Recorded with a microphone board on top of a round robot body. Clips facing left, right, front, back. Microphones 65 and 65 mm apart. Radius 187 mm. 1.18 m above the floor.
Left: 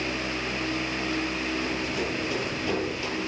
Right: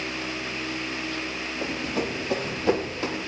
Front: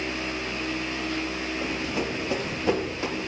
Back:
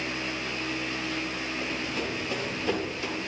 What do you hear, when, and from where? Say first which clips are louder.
1.6 s running footsteps: right 1 dB, front 4 dB; 70° right, 3 m; by 3.2 s 50° right, 2.5 m